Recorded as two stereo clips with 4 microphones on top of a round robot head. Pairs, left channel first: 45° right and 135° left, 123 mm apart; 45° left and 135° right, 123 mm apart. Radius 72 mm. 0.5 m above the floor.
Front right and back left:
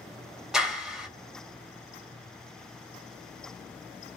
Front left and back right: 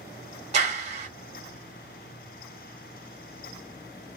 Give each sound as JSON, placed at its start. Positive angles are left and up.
{"t": 0.5, "sound": "a clap", "azimuth_deg": -140, "distance_m": 1.1}